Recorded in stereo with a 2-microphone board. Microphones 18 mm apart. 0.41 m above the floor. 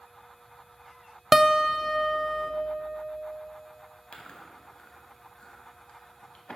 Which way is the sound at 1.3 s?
10° right (ahead or behind).